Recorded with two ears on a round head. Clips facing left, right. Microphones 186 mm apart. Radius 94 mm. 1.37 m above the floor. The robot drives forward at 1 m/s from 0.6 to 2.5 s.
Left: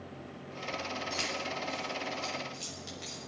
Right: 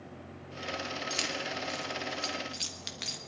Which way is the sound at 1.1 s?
45° right (ahead or behind).